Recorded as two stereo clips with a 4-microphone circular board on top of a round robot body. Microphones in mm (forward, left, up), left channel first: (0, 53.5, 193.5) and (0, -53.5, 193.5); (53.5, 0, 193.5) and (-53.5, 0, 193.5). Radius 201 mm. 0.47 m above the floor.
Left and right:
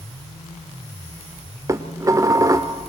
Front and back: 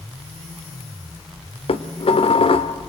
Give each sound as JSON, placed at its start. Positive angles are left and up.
{"t": 1.7, "sound": "dishes clattering", "azimuth_deg": -30, "distance_m": 1.3}